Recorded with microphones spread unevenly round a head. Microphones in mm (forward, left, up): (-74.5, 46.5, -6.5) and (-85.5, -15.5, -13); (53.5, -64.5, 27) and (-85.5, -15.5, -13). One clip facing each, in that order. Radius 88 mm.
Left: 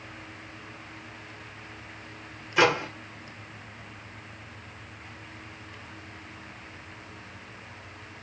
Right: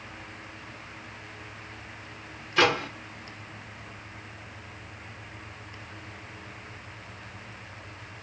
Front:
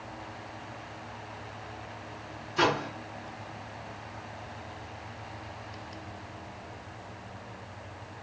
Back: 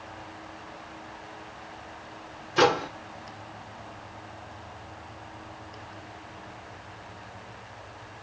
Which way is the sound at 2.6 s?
165° left.